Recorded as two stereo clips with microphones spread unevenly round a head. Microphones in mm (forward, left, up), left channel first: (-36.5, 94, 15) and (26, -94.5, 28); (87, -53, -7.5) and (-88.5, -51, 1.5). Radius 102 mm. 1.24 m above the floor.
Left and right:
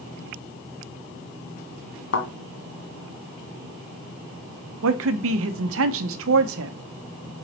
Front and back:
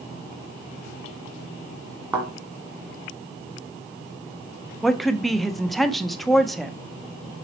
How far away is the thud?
About 1.7 m.